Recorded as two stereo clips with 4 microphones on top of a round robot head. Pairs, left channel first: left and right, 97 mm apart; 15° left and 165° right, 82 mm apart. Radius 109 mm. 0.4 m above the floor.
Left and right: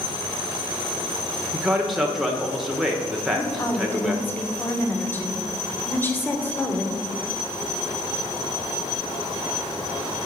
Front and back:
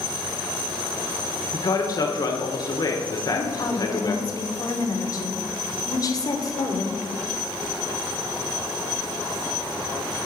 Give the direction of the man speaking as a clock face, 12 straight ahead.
12 o'clock.